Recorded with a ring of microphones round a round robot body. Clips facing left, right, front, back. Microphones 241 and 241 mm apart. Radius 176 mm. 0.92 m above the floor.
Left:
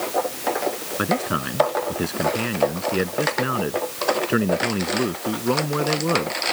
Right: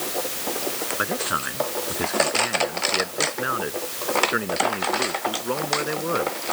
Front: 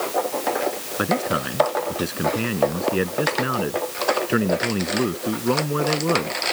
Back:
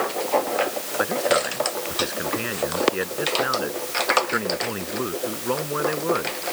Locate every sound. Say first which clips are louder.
1.0 s a man speaking: left 9 dB, back 1 dB; 45° left